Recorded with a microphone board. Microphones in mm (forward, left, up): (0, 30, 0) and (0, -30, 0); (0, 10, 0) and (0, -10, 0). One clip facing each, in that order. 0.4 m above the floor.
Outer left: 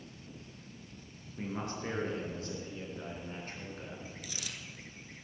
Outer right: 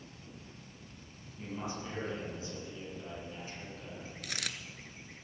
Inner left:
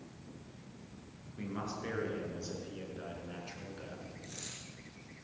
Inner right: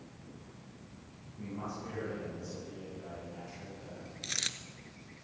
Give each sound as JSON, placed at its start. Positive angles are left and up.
{"t": 1.4, "sound": "a man speaking", "side_deg": 70, "distance_m": 5.5}
{"t": 4.2, "sound": "a dropped coin", "side_deg": -70, "distance_m": 0.7}